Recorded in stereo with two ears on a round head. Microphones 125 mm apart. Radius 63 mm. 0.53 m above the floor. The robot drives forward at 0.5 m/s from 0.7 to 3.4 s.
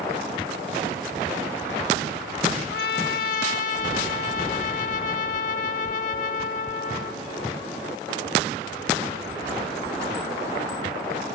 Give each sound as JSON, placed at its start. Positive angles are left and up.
{"t": 2.7, "sound": "a trumpet", "side_deg": 70, "distance_m": 0.6}